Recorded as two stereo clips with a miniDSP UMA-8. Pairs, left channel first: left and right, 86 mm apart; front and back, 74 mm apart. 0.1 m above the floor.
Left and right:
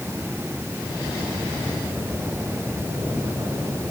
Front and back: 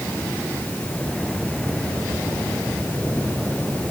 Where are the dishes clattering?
I don't hear dishes clattering.